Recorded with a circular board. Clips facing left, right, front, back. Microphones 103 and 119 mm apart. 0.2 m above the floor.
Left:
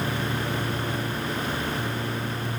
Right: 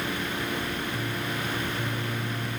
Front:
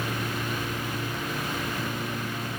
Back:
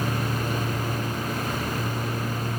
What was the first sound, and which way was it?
Only background noise.